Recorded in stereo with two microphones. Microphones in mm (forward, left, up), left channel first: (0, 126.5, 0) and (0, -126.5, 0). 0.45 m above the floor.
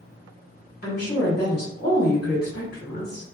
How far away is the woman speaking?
About 1.1 m.